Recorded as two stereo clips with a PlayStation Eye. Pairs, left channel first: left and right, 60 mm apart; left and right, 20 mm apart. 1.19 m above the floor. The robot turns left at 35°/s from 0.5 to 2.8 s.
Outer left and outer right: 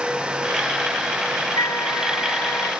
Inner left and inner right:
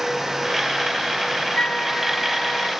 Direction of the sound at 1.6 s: 80° left.